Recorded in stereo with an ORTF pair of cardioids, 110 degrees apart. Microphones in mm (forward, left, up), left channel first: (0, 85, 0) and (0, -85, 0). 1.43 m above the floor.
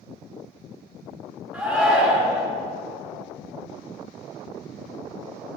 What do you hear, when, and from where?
1.5 s a shout: 5° right, 4 m